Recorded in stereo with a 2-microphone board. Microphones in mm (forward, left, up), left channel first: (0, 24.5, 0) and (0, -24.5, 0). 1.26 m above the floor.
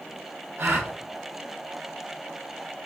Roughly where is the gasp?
Right.